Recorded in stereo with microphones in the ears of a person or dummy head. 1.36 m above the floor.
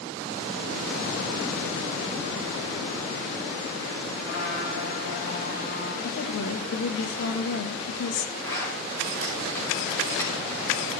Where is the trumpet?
85° left, 9 m.